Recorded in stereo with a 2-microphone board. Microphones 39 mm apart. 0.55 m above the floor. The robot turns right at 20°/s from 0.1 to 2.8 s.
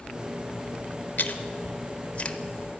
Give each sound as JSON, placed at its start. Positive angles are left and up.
{"t": 1.2, "sound": "chewing", "side_deg": 55, "distance_m": 0.8}